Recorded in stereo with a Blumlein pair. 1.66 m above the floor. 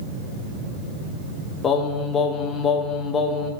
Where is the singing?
25° left, 1.0 m.